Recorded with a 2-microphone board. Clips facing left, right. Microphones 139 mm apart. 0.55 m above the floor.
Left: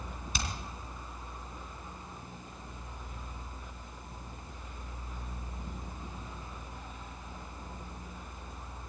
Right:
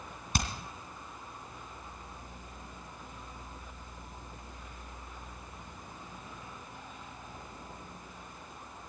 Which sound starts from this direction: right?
Hammering, at 0.3 s.